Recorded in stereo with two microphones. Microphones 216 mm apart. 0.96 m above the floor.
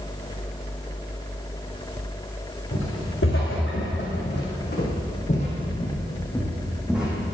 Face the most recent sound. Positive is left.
turn(degrees=-5)  # may be behind; listen again after turning